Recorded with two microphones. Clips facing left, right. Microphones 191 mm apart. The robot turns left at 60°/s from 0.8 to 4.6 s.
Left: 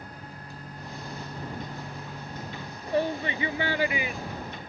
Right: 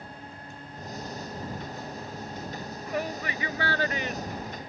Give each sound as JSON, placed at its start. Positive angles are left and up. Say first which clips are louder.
{"t": 0.1, "sound": "a microwave", "louder": "even", "azimuth_deg": 140}
{"t": 2.9, "sound": "a shout", "louder": "left 6 dB", "side_deg": 30}